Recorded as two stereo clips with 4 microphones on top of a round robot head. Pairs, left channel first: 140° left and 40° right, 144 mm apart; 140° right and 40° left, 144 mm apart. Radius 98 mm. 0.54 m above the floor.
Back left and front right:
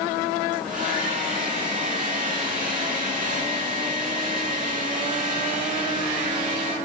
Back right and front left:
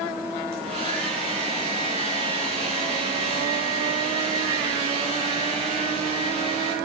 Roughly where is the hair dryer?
Ahead.